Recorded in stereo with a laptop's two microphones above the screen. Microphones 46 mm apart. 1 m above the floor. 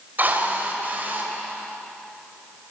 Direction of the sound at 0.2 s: 40° right (ahead or behind).